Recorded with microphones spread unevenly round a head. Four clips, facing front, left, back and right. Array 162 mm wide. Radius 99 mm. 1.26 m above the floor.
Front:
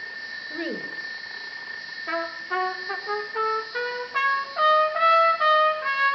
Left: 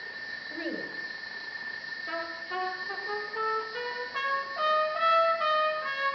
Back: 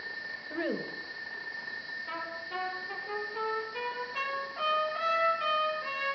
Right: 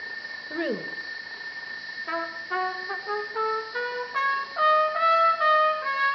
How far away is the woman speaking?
About 1.7 m.